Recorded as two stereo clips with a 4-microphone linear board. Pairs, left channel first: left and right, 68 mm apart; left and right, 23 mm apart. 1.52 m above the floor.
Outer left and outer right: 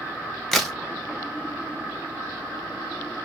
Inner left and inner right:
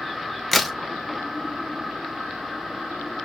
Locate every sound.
0.5 s a crack: 5° left (ahead or behind), 0.6 m